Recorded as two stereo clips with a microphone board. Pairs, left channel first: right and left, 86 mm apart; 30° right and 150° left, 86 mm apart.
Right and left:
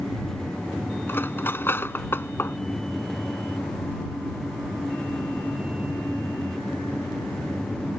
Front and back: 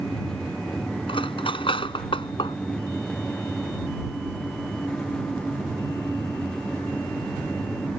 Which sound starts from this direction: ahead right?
Cutlery clinking, at 1.1 s.